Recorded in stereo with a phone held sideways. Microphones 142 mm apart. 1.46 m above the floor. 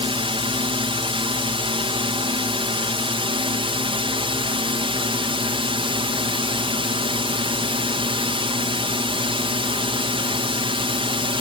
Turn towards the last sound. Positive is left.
turn(degrees=-40)  # may be behind; listen again after turning